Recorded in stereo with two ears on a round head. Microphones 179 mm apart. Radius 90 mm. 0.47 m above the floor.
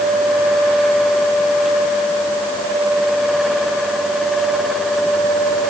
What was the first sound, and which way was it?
Only background noise.